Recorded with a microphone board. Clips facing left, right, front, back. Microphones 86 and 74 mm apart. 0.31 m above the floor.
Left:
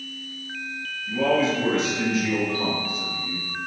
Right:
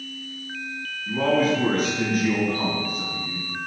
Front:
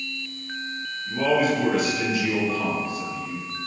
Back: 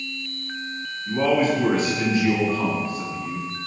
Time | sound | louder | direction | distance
1.1 | a man speaking | right 1 dB, back 1 dB | 125° right | 3.5 m